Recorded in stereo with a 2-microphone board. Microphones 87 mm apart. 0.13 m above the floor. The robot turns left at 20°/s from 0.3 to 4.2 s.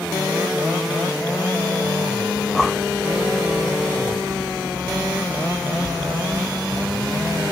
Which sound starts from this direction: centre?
Breathing, at 2.4 s.